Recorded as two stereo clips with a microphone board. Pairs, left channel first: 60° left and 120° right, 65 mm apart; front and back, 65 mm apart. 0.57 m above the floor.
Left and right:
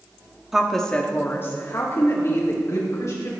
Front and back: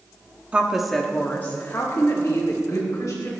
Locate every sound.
0.5 s a woman speaking: 175° left, 1.2 m; by 3.3 s 40° left, 3.5 m